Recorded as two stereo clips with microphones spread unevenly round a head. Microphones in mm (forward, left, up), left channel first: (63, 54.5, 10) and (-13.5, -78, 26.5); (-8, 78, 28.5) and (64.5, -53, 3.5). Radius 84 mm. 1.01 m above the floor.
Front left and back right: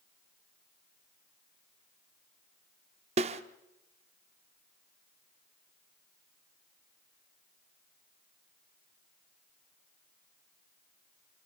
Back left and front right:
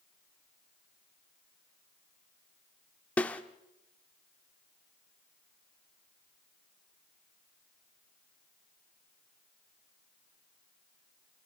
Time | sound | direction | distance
3.2 | a snare drum | 165° right | 0.8 m